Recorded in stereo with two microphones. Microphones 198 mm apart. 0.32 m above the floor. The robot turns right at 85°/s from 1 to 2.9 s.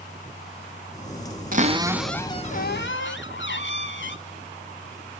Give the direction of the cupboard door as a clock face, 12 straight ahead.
2 o'clock.